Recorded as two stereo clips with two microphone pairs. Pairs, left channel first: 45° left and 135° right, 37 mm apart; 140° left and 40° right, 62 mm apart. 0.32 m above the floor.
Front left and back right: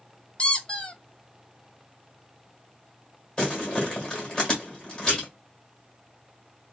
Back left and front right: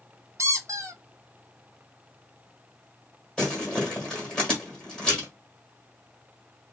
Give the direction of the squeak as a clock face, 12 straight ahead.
12 o'clock.